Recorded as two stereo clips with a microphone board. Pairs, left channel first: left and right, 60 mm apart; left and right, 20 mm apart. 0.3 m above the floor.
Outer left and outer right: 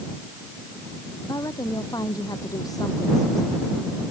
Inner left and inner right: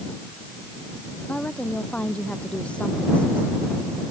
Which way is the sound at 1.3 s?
85° left.